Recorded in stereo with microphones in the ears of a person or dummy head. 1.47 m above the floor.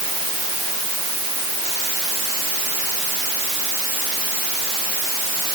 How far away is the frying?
No frying in this recording.